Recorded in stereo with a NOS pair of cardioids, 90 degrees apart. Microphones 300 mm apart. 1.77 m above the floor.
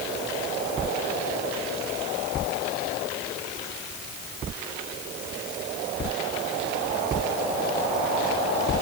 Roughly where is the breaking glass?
No breaking glass in this recording.